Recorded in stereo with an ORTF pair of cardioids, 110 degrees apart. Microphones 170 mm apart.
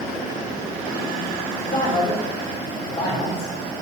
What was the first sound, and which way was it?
A man speaking, 60° left.